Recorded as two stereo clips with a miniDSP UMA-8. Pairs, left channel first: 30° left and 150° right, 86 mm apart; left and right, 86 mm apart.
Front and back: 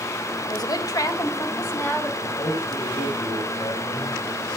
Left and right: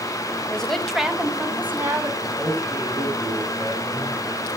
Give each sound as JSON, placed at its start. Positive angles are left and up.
{"t": 0.5, "sound": "a woman speaking", "azimuth_deg": 15, "distance_m": 2.0}
{"t": 2.2, "sound": "a man speaking", "azimuth_deg": 15, "distance_m": 8.0}